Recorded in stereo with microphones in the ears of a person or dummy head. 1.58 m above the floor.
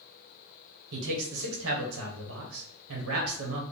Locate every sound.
0.9 s a man speaking: 80° right, 1.1 m